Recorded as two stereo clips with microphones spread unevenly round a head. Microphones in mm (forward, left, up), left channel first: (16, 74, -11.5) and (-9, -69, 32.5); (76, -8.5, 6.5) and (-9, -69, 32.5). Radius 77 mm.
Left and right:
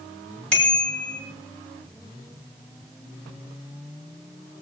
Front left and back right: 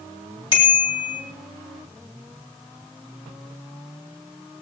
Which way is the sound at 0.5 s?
5° right.